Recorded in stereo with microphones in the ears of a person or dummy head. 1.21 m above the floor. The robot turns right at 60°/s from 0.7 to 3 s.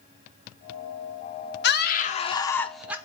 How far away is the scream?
About 0.8 m.